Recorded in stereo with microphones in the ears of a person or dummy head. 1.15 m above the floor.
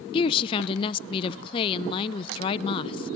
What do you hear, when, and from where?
0.1 s a woman speaking: 25° left (ahead or behind), 0.6 m